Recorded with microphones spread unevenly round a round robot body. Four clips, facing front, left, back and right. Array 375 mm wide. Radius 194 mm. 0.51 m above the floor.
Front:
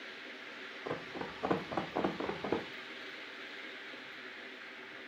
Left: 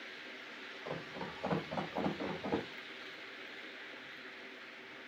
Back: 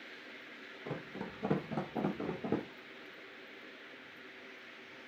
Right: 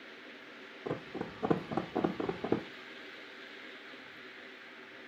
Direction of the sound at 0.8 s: 100° right.